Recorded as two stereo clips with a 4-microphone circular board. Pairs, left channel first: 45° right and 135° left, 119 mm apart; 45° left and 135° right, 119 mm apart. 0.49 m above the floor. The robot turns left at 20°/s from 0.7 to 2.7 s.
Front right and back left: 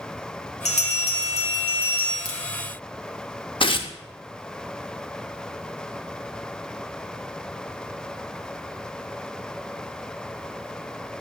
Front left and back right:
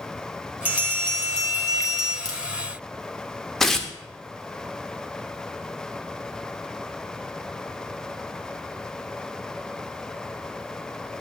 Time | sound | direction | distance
0.7 | a bell | 60° right | 1.9 m
2.2 | a crack | 85° right | 2.0 m
3.6 | tearing paper | 40° right | 0.6 m